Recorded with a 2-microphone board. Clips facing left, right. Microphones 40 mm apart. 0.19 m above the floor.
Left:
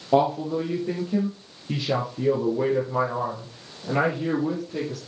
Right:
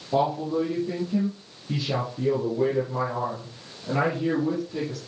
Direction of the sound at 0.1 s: 50° left (ahead or behind).